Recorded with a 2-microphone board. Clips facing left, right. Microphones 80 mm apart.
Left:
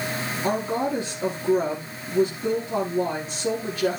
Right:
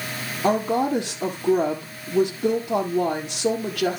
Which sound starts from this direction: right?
A woman speaking, at 0.4 s.